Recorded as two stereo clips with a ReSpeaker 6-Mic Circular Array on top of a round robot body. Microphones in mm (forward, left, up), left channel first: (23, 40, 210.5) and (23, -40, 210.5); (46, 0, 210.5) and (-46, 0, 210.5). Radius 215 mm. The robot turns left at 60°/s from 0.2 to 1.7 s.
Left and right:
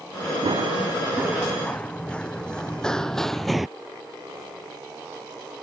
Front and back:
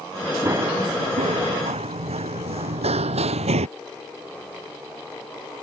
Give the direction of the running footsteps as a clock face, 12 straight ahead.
4 o'clock.